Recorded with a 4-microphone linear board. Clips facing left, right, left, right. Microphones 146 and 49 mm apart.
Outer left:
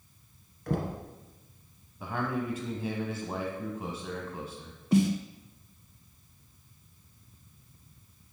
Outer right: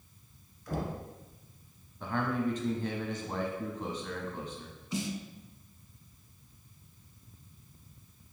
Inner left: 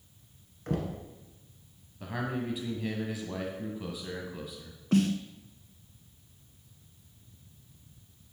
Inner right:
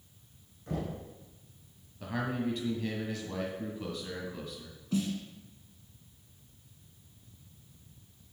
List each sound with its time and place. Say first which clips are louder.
0.7 s knocking: outer left 4 dB, inner left 3 dB; 65° left (ahead or behind), 1.6 m
2.0 s a man speaking: outer right 1 dB, inner right 1 dB; 10° left (ahead or behind), 1.1 m
4.9 s a snare drum: outer left 11 dB, inner left 6 dB; 65° left (ahead or behind), 0.5 m